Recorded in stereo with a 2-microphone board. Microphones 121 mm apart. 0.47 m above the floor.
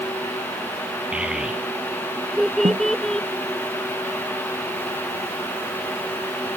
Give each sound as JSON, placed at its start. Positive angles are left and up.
{"t": 1.1, "sound": "a child speaking", "side_deg": -10}
{"t": 2.6, "sound": "a snare drum", "side_deg": -75}